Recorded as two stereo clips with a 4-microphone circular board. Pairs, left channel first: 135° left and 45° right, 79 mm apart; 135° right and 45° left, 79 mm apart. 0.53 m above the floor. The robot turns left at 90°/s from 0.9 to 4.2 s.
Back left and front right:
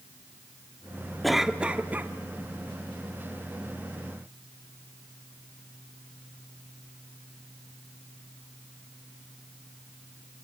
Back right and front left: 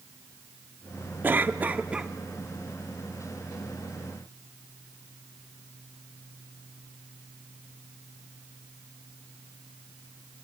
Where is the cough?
50° left, 0.7 m; by 2.1 s 30° right, 0.7 m.